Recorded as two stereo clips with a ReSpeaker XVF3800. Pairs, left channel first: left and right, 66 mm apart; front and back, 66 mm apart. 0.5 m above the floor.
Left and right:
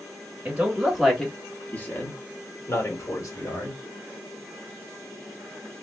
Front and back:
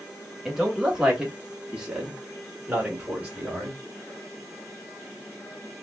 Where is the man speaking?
105° right, 1.0 m; by 3.8 s 105° left, 2.0 m.